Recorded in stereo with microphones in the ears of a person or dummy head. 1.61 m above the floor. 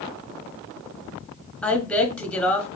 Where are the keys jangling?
I don't hear keys jangling.